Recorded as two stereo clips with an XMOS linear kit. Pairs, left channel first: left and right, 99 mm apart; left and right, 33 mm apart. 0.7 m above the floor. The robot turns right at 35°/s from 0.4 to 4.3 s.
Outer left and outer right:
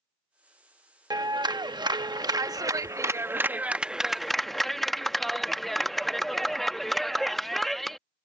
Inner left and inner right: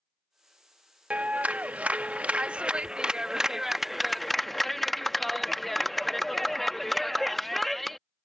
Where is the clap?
110° right; by 8.0 s 5° left.